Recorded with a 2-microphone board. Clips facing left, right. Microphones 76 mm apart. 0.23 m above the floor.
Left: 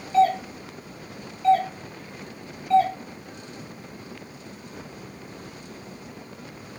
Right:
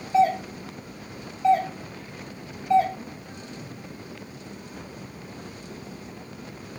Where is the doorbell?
20° right (ahead or behind), 2 m.